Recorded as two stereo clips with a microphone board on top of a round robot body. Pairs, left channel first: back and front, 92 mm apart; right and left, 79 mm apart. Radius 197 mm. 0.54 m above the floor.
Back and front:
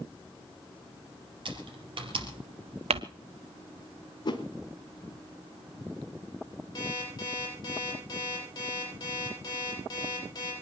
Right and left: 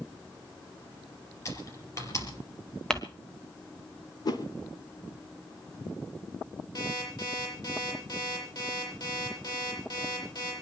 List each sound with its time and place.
1.4 s typing on a keyboard: 35° right, 4 m
2.9 s crumpling: 5° right, 0.6 m
4.2 s a whoosh: 135° right, 1.3 m
6.8 s an alarm clock: 130° right, 10 m